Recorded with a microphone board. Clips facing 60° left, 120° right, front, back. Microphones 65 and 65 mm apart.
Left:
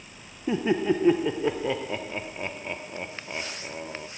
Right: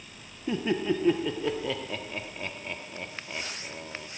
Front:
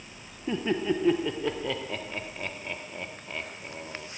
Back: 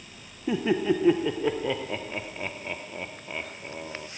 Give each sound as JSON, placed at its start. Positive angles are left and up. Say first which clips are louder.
{"t": 0.5, "sound": "laughter", "louder": "left 4 dB, back 3 dB", "azimuth_deg": 115, "distance_m": 0.7}